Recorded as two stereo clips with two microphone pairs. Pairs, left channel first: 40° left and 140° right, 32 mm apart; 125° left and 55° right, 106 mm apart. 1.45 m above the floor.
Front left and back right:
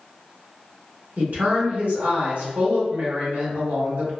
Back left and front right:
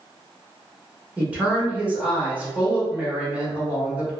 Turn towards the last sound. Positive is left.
turn(degrees=-130)